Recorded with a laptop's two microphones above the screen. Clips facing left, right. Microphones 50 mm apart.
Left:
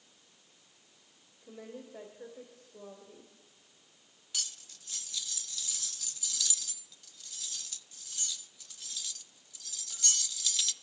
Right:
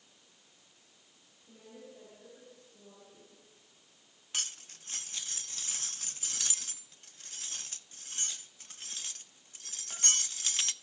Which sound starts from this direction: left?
A woman speaking, at 1.4 s.